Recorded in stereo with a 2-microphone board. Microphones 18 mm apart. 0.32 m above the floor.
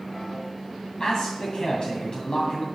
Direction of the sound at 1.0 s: 55° left (ahead or behind).